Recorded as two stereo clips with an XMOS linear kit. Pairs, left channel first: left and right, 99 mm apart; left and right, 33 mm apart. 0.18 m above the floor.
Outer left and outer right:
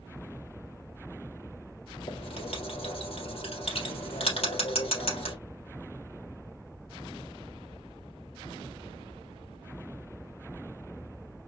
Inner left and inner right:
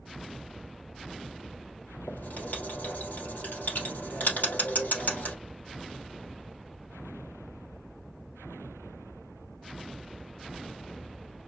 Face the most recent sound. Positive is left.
turn(degrees=75)  # may be behind; listen again after turning